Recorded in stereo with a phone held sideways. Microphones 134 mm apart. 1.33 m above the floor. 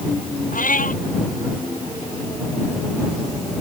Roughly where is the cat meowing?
Left.